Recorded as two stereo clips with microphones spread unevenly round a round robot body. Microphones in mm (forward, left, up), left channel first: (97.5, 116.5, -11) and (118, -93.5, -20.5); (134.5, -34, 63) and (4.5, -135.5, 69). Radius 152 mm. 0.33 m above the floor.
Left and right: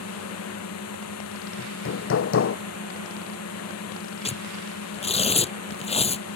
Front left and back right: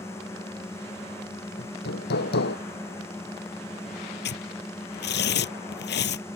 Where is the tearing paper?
35° left.